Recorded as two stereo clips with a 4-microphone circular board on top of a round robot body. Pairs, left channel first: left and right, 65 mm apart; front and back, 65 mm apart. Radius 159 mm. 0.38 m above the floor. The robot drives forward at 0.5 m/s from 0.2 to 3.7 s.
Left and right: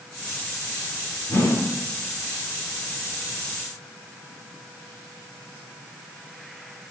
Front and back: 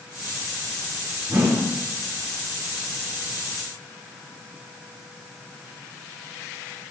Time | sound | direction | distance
1.3 | a whoosh | 130° left | 6.5 m